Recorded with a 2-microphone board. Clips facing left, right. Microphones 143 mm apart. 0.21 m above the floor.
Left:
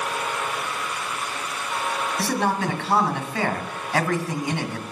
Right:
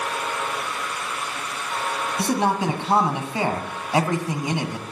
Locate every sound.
2.2 s a man speaking: 20° right (ahead or behind), 1.6 m